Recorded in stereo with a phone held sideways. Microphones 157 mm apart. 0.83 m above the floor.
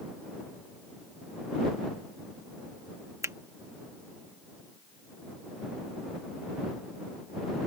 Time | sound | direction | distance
3.2 | a finger snap | 20° right (ahead or behind) | ?